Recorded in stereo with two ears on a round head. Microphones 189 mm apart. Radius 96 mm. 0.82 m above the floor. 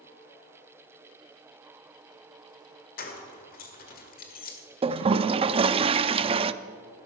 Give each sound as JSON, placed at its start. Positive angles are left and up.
{"t": 3.0, "sound": "keys jangling", "side_deg": 40, "distance_m": 1.9}
{"t": 4.8, "sound": "a toilet flushing", "side_deg": -25, "distance_m": 0.5}